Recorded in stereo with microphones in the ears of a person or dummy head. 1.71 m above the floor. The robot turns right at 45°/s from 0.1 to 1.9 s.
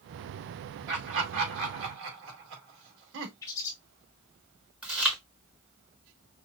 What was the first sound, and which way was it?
Laughter, 60° right (ahead or behind).